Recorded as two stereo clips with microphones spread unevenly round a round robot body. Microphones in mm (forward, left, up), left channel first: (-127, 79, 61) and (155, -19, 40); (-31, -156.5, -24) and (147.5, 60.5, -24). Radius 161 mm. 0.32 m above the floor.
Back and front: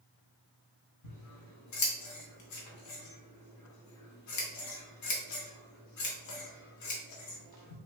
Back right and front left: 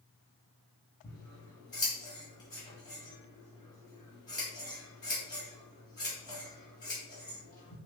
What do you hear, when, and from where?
1.0 s scissors: 165° left, 1.0 m